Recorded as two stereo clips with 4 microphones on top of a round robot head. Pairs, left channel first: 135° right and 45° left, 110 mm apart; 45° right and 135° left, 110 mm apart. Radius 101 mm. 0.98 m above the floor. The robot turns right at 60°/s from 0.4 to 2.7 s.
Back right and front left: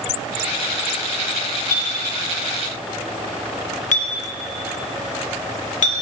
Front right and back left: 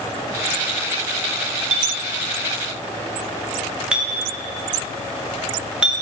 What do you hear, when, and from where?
1.7 s a clink: 155° left, 0.5 m; by 5.9 s 145° right, 0.5 m